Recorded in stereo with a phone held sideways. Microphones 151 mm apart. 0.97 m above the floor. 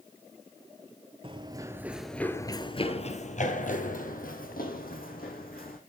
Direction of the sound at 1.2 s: 35° right (ahead or behind).